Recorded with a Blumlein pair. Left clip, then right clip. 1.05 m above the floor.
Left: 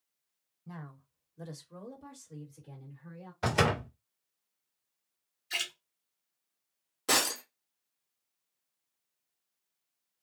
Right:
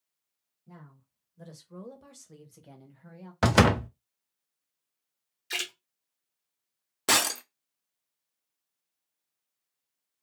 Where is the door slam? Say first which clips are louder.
Right 6 dB; 50° right, 0.5 m.